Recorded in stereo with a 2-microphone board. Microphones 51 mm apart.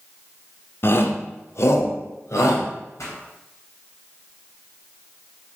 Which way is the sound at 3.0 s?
75° left (ahead or behind).